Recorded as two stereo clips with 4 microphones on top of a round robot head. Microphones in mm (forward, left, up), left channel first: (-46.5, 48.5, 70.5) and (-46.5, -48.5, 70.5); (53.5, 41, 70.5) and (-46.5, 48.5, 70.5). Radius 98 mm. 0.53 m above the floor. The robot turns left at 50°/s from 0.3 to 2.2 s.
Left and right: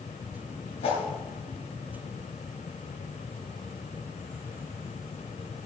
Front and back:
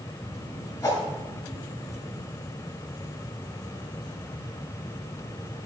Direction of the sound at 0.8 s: 50° left.